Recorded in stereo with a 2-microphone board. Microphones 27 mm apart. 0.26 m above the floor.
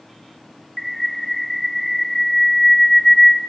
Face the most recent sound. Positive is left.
turn(degrees=5)  # may be behind; listen again after turning